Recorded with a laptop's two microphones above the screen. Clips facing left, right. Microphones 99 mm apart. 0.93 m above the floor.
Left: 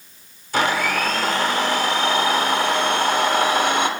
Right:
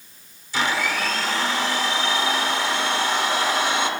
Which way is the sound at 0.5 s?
55° left (ahead or behind).